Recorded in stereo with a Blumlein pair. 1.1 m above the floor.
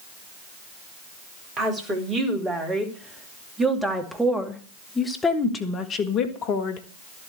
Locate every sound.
1.6 s a woman speaking: 25° right, 3.5 m; by 6.8 s 50° left, 1.7 m